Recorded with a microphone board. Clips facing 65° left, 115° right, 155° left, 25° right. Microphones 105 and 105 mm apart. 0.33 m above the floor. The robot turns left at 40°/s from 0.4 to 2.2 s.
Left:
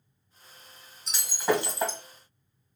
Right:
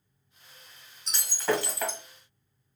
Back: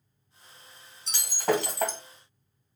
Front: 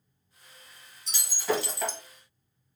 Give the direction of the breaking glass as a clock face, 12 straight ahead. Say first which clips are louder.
Left 2 dB, back 3 dB; 7 o'clock.